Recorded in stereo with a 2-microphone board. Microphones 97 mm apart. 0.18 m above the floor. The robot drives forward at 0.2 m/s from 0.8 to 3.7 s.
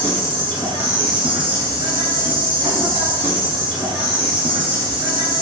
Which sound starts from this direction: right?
An insect, at 0.0 s.